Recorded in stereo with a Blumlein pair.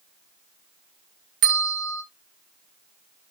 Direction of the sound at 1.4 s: 45° right.